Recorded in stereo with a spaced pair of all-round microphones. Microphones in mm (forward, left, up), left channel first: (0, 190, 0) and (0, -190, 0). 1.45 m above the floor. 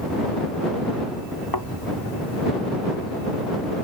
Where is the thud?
65° left (ahead or behind).